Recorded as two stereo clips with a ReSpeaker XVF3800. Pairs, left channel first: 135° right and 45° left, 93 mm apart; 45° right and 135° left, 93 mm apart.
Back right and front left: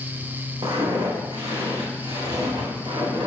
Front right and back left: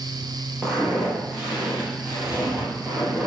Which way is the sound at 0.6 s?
50° left.